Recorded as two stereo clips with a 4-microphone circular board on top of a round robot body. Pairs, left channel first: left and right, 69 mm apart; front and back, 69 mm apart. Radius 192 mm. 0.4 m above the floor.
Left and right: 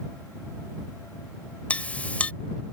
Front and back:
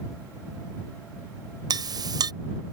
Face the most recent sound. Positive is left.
turn(degrees=160)